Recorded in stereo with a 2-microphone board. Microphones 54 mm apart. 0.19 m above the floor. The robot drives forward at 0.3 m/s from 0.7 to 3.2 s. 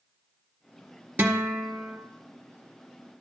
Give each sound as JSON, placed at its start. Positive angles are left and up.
{"t": 1.2, "sound": "a guitar", "side_deg": -30, "distance_m": 1.1}